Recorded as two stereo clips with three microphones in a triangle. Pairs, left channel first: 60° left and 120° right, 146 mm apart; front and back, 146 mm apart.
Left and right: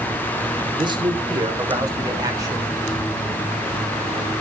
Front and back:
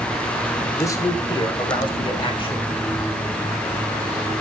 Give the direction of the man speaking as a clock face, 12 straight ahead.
2 o'clock.